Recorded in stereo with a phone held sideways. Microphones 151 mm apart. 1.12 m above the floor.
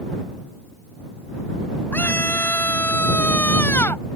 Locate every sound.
1.9 s a scream: 10° left (ahead or behind); by 4.0 s 15° left (ahead or behind)